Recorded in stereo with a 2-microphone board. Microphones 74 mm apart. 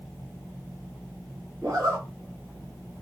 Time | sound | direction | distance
1.6 | a zipper | 45° right (ahead or behind) | 2.5 m